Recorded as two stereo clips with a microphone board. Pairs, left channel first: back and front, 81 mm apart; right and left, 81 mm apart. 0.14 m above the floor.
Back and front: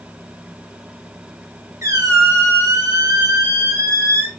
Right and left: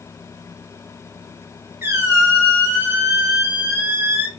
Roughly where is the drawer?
No drawer in this recording.